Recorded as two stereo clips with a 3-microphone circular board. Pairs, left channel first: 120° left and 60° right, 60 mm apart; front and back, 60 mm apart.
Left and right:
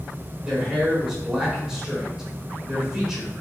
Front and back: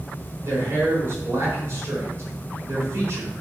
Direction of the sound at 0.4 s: 140° right.